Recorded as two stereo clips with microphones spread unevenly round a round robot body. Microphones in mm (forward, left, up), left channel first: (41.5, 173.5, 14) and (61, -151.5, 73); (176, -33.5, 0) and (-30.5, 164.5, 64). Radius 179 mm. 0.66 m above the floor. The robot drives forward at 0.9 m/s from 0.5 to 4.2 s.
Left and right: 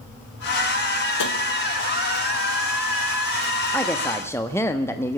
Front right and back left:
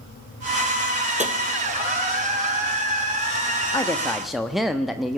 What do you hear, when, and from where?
1.2 s tapping: 65° left, 2 m; by 1.3 s 70° left, 2 m
3.7 s a woman speaking: 20° left, 1.5 m; by 5.2 s 30° left, 1.3 m